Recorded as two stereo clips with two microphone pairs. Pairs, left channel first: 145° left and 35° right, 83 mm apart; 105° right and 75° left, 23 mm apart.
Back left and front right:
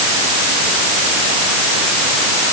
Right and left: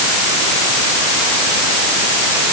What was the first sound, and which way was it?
Only background noise.